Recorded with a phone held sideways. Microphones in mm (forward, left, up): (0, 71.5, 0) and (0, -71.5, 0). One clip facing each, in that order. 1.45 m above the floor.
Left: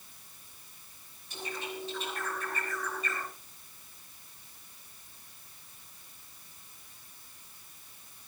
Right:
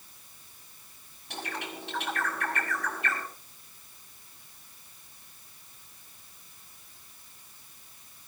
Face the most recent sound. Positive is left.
turn(degrees=-70)  # may be behind; listen again after turning